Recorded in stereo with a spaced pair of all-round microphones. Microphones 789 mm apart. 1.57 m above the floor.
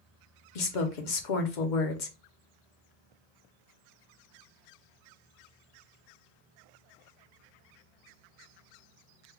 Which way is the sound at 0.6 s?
70° left (ahead or behind).